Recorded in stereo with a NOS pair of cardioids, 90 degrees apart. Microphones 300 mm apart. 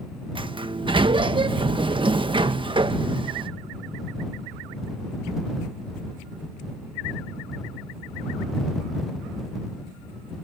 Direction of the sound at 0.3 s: 15° right.